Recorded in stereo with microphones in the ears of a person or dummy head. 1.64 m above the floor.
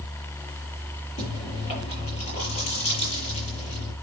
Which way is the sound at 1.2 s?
35° left (ahead or behind).